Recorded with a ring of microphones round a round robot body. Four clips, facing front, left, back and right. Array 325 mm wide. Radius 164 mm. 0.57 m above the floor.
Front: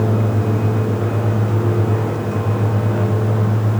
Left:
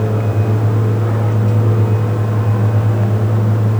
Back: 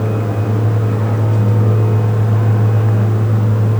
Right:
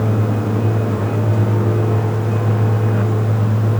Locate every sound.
Only background noise.